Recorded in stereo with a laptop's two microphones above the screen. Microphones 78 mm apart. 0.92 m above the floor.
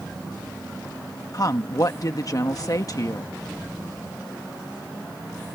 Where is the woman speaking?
50° left (ahead or behind).